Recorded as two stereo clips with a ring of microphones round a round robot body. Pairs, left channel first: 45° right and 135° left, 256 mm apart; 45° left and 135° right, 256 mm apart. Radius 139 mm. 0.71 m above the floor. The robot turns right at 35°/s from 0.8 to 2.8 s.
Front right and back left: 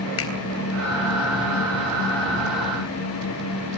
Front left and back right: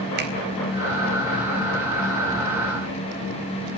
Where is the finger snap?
85° right, 4 m.